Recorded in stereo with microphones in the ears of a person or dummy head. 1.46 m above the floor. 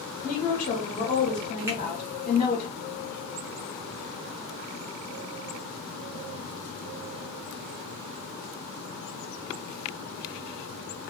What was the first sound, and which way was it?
A woman speaking, 35° left (ahead or behind).